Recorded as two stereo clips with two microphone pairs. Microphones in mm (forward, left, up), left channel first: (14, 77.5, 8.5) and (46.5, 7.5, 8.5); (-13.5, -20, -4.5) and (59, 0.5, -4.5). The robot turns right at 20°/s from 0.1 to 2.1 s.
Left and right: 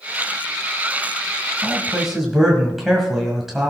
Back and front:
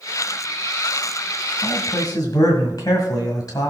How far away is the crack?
I don't hear a crack.